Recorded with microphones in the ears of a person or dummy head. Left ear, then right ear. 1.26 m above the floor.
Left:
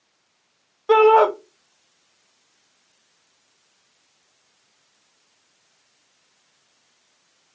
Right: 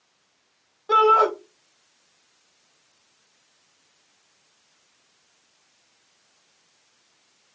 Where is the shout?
40° left (ahead or behind), 0.6 m.